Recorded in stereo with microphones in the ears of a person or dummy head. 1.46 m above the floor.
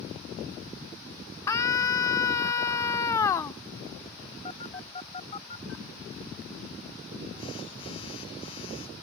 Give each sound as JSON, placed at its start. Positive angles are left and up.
{"t": 1.5, "sound": "a scream", "side_deg": 20}
{"t": 4.5, "sound": "a phone buzzing", "side_deg": 35}